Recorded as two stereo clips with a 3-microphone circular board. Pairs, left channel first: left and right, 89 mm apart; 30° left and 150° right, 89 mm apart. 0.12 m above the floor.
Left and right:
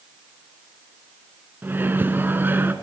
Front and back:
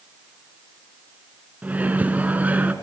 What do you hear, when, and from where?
1.6 s a microwave: 105° right, 1.1 m